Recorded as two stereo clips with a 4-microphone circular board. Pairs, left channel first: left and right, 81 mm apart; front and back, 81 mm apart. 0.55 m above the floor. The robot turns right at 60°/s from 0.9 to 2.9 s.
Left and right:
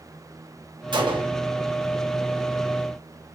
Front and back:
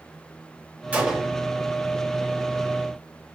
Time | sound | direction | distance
0.9 | a gunshot | 110° right | 1.0 m